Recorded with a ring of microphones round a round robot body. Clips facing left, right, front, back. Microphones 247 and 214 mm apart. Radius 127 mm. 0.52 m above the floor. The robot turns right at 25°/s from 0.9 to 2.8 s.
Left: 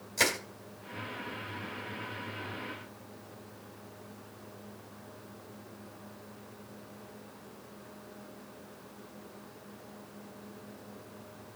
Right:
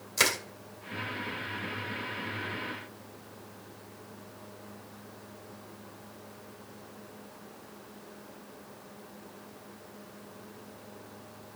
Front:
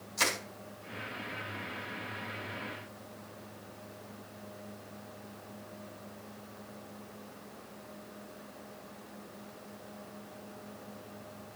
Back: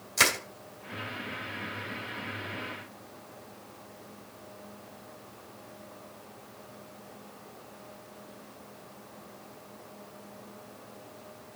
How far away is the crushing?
About 3 m.